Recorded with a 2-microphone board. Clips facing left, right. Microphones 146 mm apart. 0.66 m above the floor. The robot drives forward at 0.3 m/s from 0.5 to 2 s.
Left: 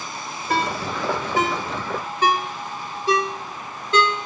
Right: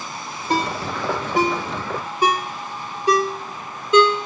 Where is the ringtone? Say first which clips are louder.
Right 1 dB; 20° right (ahead or behind), 0.9 m; by 4.3 s 15° right (ahead or behind), 1.3 m.